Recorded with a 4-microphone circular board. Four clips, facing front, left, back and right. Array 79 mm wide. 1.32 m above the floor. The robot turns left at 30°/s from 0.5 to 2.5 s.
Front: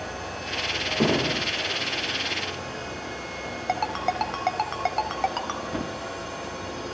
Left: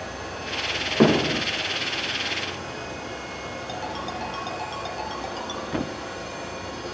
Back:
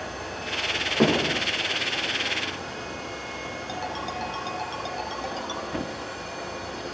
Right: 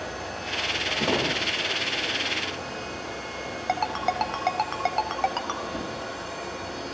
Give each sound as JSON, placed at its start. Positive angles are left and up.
{"t": 1.0, "sound": "hammering", "azimuth_deg": 105, "distance_m": 6.5}
{"t": 3.7, "sound": "a ringtone", "azimuth_deg": -45, "distance_m": 3.5}
{"t": 5.7, "sound": "a thud", "azimuth_deg": 100, "distance_m": 0.9}